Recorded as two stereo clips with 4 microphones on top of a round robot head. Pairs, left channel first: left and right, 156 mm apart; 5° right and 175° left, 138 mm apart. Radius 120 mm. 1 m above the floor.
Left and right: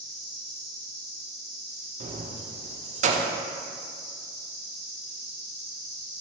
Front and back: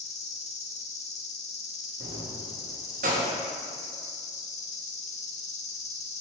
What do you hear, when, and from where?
0.0 s an insect: 35° left, 1.0 m
2.0 s keys jangling: 135° right, 0.5 m